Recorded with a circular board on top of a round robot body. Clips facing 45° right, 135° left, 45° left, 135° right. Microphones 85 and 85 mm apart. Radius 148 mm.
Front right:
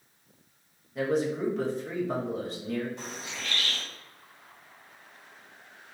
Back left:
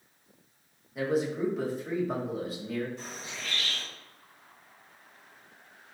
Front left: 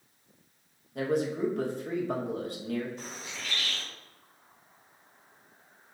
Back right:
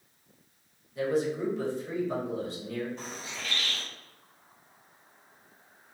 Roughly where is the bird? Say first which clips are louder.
Front right 2 dB, back right 2 dB; right.